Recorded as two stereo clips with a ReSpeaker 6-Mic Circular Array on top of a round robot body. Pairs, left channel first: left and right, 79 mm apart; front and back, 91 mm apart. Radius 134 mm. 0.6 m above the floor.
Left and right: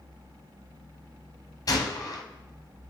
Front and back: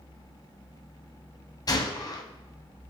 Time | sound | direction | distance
1.7 | a gunshot | 50° left | 1.4 m